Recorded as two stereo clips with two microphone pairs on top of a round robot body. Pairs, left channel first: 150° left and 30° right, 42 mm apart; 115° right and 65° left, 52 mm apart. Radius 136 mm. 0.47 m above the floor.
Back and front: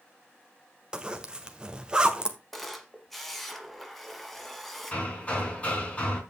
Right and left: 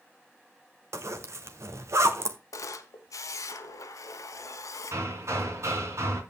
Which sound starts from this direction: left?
Hammering, at 4.9 s.